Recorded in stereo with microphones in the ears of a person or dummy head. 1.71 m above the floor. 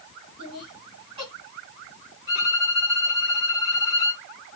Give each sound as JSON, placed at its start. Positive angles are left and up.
{"t": 0.4, "sound": "laughter", "side_deg": -25, "distance_m": 3.0}
{"t": 2.3, "sound": "a violin", "side_deg": -20, "distance_m": 1.6}